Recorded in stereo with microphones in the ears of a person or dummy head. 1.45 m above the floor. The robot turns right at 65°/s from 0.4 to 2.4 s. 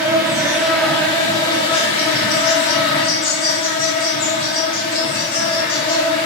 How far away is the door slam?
I don't hear a door slam.